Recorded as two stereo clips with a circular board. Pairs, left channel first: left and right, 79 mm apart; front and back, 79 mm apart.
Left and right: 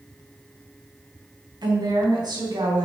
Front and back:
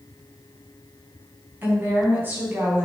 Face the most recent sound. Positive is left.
turn(degrees=-115)